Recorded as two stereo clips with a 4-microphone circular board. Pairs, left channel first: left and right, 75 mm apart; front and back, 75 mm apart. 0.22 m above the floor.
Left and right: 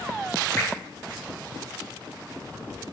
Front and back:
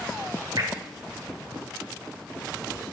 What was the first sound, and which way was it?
Dripping, 145° left.